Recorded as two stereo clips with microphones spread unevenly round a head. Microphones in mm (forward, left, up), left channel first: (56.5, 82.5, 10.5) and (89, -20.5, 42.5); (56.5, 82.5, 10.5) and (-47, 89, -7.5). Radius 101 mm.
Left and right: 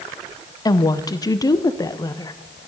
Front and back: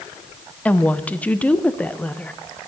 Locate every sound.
0.7 s a woman speaking: 80° left, 0.9 m